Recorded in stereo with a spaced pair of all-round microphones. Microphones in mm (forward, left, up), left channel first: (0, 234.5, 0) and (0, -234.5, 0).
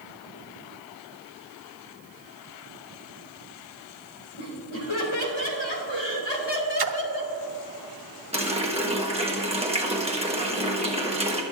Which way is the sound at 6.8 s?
50° right (ahead or behind).